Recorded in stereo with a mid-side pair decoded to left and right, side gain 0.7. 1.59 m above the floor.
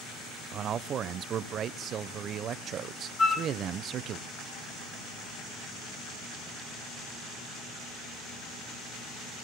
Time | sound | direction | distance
0.5 | a man speaking | 40° right | 1.0 m
3.2 | a flute | 15° left | 2 m